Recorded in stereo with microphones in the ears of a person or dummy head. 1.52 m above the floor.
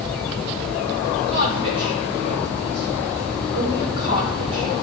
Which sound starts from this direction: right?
A woman speaking, at 1.3 s.